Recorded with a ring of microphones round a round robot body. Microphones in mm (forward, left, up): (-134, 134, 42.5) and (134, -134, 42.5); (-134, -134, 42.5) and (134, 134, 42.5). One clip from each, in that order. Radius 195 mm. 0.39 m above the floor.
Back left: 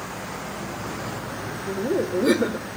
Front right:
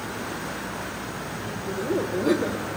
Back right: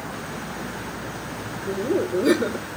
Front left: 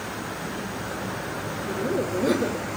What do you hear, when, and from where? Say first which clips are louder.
1.7 s laughter: back left 2 dB, back right 4 dB; 175° right, 1.5 m